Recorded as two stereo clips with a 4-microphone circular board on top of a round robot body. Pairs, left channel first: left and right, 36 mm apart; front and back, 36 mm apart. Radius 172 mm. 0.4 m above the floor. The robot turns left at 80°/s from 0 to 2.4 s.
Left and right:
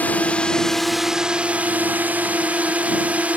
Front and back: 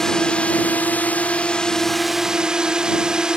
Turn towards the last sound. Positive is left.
turn(degrees=-120)